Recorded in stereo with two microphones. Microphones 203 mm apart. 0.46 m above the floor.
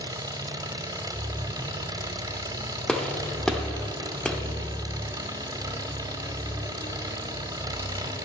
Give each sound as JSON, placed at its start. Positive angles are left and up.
{"t": 0.0, "sound": "an engine running", "side_deg": -15, "distance_m": 0.8}
{"t": 2.9, "sound": "a gunshot", "side_deg": 5, "distance_m": 0.8}